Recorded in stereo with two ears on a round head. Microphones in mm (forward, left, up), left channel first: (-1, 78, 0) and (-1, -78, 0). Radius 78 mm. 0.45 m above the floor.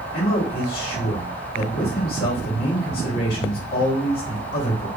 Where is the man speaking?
55° left (ahead or behind), 1.7 m.